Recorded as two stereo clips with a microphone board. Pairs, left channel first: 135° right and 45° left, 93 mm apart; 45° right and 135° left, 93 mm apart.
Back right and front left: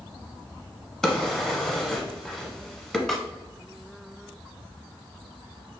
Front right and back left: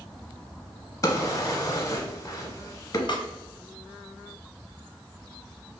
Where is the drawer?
55° right, 0.7 m.